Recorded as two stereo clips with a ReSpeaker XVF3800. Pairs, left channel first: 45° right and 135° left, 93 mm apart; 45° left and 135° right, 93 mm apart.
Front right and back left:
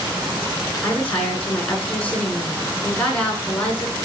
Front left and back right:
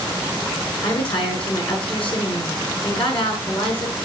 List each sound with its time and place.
0.8 s a woman speaking: 30° left, 6 m